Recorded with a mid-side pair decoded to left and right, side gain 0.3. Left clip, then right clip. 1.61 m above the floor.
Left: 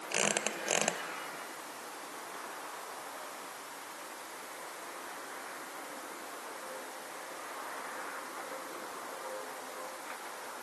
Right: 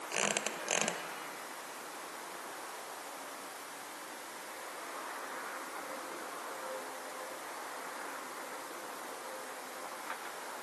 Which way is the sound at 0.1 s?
35° left.